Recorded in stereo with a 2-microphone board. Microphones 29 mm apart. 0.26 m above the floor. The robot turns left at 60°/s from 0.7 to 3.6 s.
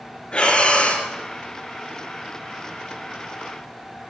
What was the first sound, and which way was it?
Breathing, 30° left (ahead or behind).